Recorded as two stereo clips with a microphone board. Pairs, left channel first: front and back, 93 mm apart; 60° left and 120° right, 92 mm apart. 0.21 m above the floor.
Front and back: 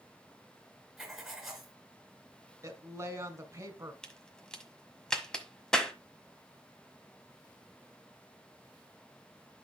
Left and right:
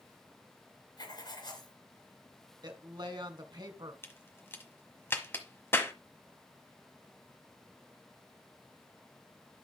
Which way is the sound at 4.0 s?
70° left.